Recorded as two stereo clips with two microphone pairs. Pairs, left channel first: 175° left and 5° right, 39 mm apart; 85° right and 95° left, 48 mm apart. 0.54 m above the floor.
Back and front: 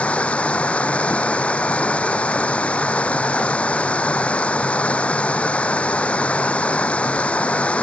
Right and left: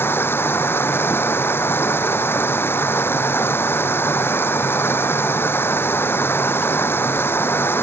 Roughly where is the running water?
Behind right.